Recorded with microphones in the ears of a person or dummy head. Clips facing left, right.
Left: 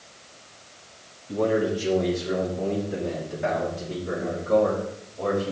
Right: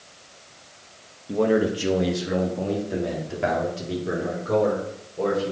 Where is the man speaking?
55° right (ahead or behind), 1.9 m; by 5.5 s 85° right, 6 m.